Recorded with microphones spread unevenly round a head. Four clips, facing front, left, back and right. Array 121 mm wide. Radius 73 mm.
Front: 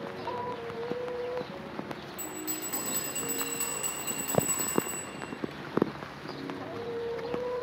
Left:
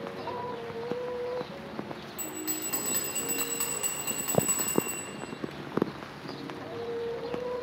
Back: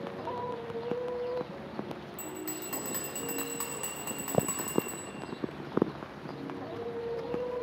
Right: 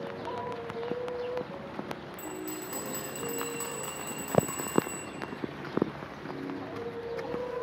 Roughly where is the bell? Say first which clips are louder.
Left 1 dB, front 1 dB; behind.